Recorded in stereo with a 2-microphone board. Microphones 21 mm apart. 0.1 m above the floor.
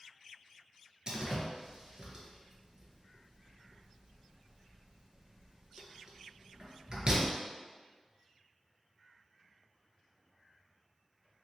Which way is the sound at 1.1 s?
35° right (ahead or behind).